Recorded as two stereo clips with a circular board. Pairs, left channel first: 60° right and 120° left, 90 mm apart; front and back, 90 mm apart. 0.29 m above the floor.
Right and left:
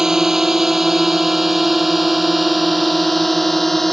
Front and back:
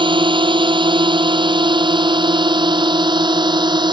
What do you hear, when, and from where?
0.0 s a drone: 155° right; by 3.9 s 145° right